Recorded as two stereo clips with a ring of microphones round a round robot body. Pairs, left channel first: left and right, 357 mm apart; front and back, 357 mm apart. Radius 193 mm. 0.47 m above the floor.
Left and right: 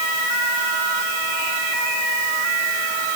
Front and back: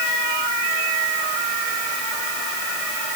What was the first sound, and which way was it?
Only background noise.